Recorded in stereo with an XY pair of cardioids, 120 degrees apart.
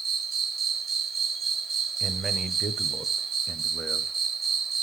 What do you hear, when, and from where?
0.0 s an insect: 40° right, 1.0 m
2.0 s a man speaking: 20° right, 1.1 m